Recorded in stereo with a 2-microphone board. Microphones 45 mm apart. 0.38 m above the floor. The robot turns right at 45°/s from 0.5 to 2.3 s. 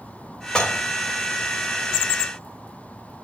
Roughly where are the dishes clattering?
Centre.